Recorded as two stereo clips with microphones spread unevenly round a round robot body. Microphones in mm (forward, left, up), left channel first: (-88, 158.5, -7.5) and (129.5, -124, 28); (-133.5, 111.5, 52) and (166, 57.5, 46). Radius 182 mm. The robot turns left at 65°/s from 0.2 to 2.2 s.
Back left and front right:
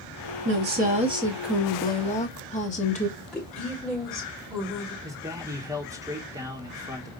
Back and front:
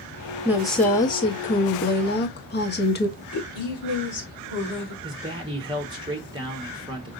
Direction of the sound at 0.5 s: 85° right.